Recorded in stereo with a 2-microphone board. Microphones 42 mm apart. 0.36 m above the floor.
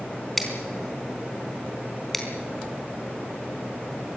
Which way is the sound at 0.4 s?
5° left (ahead or behind).